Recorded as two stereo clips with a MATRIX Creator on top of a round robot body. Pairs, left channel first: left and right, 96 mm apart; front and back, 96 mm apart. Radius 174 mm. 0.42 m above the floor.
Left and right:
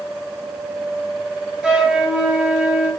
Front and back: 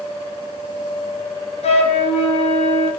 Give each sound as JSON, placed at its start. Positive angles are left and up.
{"t": 1.6, "sound": "a flute", "azimuth_deg": -5, "distance_m": 2.0}